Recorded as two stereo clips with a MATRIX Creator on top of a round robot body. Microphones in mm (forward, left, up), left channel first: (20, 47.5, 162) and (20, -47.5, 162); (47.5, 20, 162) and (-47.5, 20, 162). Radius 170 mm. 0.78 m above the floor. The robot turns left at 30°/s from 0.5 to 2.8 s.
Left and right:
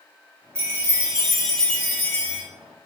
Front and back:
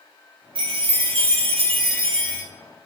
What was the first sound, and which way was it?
A chime, 155° right.